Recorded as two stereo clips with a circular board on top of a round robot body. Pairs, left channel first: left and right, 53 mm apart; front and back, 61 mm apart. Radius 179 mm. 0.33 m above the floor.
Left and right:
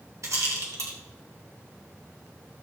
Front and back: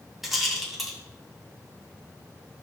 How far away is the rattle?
About 2.5 m.